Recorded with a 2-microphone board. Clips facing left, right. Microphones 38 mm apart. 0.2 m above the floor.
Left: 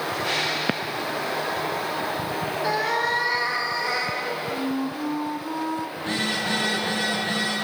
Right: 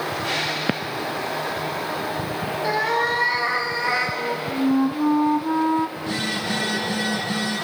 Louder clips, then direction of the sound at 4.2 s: Right 3 dB; 35° right (ahead or behind).